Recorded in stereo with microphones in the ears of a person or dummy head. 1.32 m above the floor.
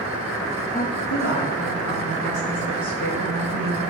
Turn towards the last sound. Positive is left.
turn(degrees=85)